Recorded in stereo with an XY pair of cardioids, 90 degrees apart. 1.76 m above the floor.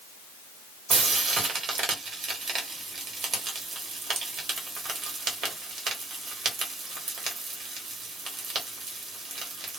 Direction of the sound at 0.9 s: 60° right.